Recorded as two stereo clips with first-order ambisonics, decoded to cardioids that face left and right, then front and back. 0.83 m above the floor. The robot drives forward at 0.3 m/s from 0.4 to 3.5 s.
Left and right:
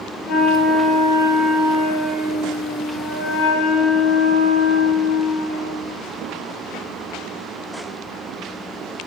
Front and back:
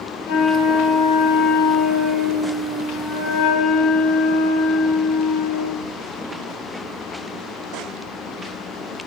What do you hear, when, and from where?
0.3 s a flute: 35° left, 3 m; by 5.8 s 45° left, 2.5 m